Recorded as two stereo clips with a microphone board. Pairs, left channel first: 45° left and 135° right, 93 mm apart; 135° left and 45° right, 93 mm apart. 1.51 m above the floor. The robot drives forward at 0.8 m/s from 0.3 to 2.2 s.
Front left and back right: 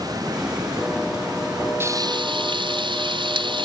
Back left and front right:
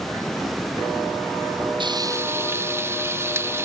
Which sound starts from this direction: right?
Frying, at 1.8 s.